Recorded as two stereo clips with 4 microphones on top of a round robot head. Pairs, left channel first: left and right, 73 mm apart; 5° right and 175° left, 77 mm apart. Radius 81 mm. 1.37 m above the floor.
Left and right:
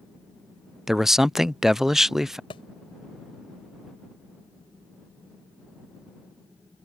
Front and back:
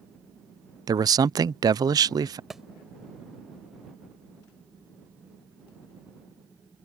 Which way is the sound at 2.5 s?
90° left.